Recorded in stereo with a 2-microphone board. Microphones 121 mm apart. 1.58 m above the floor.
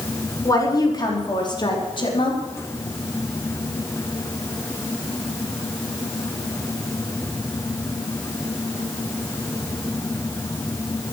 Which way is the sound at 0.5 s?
30° left (ahead or behind).